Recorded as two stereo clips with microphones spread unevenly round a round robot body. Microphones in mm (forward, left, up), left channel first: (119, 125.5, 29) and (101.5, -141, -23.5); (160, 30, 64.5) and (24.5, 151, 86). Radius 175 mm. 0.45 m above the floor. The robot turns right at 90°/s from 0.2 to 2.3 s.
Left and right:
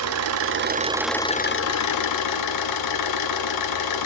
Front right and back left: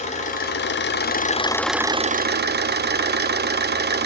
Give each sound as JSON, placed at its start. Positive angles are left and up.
{"t": 0.0, "sound": "an engine running", "azimuth_deg": -90, "distance_m": 0.8}